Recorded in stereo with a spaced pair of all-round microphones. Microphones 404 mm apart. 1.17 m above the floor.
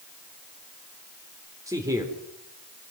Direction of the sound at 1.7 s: 10° right (ahead or behind).